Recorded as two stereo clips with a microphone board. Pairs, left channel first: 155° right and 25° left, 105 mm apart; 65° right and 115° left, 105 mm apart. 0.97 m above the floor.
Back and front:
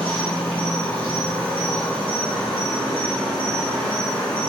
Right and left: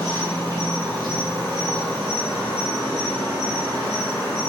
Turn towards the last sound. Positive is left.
turn(degrees=135)